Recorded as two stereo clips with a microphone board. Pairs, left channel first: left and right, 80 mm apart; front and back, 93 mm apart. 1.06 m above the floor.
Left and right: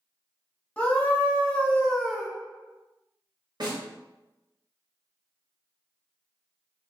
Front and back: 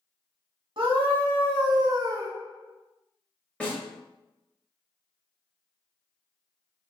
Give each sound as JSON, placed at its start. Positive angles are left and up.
{"t": 0.8, "sound": "a scream", "azimuth_deg": 160, "distance_m": 1.9}
{"t": 3.6, "sound": "a snare drum", "azimuth_deg": -75, "distance_m": 1.6}